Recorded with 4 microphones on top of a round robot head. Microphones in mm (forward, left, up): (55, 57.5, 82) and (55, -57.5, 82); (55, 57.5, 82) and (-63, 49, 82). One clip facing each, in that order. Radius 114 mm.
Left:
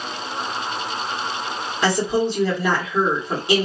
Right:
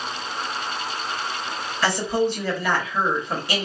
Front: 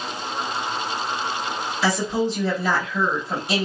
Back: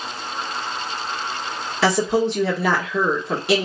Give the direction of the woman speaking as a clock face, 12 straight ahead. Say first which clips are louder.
Left 2 dB, back 4 dB; 7 o'clock.